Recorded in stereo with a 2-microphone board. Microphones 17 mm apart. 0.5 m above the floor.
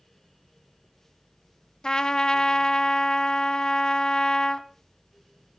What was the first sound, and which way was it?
A trumpet, 45° left (ahead or behind).